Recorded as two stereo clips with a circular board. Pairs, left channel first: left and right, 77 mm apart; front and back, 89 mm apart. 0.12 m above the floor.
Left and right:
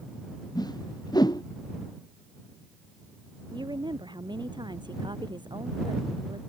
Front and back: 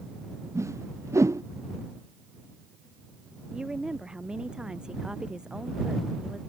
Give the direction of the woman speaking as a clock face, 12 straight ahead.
3 o'clock.